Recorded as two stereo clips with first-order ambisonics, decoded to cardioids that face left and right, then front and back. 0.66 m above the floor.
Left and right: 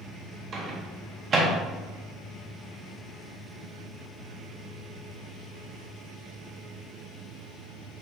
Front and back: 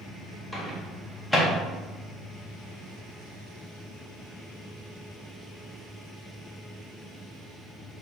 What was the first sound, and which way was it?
A microwave, 75° right.